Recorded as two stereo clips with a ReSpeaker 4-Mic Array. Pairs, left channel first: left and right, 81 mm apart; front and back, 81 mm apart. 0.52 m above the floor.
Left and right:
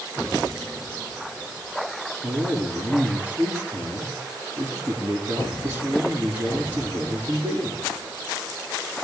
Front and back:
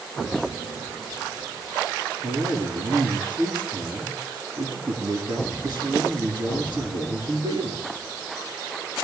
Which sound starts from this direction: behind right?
A man speaking, at 2.2 s.